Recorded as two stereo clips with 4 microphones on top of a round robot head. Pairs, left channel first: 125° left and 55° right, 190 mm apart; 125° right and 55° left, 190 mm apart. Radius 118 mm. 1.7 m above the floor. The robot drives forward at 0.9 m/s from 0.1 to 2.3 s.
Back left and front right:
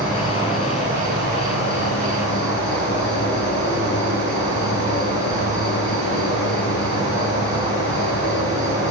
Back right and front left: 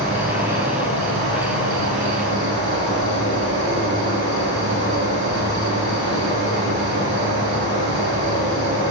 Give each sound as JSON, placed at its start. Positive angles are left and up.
{"t": 0.0, "sound": "an insect", "azimuth_deg": 75, "distance_m": 9.0}